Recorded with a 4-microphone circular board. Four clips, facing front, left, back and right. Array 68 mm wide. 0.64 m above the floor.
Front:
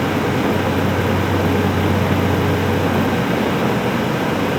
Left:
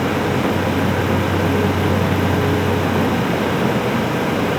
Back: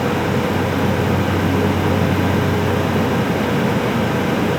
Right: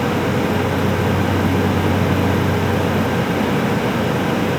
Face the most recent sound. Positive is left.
No sound to turn to.